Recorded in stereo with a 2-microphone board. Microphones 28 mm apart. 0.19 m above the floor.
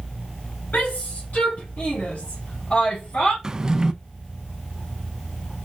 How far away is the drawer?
About 0.5 m.